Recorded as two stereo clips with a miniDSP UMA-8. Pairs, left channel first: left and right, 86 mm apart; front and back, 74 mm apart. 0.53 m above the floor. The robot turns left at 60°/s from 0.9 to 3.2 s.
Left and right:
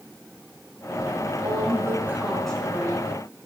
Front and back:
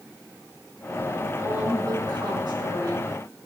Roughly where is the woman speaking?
Behind right.